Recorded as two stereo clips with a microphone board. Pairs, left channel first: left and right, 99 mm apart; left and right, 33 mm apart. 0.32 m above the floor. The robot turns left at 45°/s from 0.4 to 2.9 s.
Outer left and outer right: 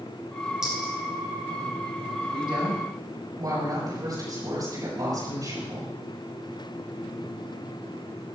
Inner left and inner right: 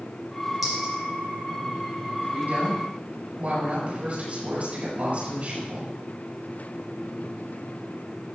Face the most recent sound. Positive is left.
turn(degrees=-135)